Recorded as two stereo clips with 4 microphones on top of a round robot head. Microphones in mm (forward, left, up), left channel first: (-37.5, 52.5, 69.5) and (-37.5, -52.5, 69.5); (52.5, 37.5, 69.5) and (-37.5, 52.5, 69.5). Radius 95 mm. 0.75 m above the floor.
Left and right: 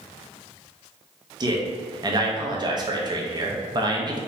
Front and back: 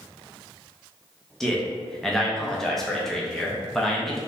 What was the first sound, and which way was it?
A man speaking, 95° right.